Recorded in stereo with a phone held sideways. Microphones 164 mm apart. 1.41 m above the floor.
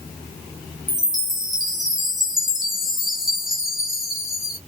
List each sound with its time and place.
0.9 s a chime: 5° right (ahead or behind), 1.1 m